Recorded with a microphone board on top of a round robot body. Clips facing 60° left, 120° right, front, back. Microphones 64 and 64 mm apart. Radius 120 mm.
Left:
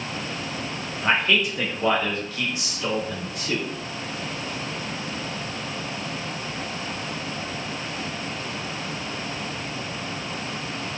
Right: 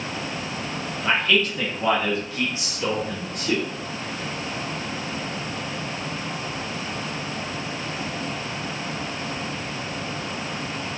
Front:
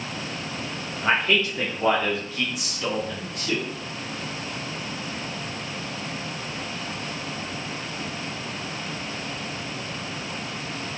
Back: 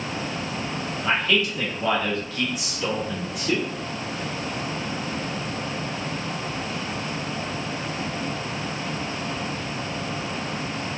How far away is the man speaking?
About 1.7 m.